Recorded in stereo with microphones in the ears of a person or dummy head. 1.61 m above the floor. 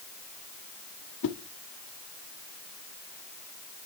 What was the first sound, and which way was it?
A whoosh, 80° left.